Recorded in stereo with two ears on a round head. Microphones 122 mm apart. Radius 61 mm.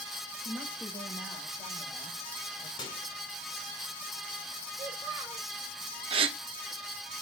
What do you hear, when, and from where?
0.4 s a woman speaking: 20° right (ahead or behind), 5 m; by 2.7 s 5° left (ahead or behind), 4 m
2.8 s a microwave: 35° left (ahead or behind), 2.5 m
4.7 s a child speaking: 20° right (ahead or behind), 3.5 m
6.1 s a gasp: 40° right (ahead or behind), 0.6 m